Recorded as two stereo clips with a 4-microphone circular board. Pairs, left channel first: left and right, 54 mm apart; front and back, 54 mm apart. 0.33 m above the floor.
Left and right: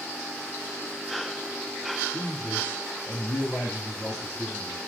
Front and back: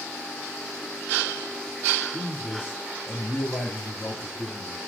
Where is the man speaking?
45° left, 1.2 m; by 4.8 s 25° left, 2.5 m.